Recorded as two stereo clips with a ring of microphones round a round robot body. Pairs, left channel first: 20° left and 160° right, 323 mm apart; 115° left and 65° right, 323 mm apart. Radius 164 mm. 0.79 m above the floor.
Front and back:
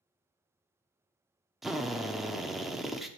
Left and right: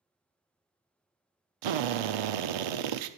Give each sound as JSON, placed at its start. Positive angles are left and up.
{"t": 1.6, "sound": "a drill", "azimuth_deg": -70, "distance_m": 0.8}